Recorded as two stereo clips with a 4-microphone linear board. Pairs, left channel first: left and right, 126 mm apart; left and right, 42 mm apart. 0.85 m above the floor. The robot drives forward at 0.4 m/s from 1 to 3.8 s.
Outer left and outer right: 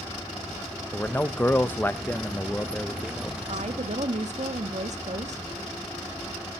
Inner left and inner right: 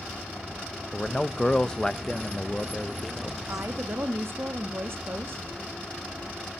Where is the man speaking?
15° left (ahead or behind), 0.6 m; by 3.4 s 10° left (ahead or behind), 0.9 m.